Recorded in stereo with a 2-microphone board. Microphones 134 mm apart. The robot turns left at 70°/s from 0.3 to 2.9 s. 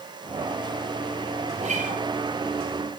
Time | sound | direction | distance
1.5 | a guitar | 55° right | 6 m